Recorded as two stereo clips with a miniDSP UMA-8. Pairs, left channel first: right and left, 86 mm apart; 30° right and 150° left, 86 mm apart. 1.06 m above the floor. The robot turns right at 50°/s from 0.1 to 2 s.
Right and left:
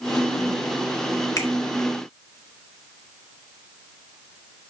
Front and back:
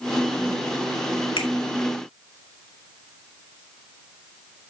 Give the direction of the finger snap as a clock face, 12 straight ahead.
1 o'clock.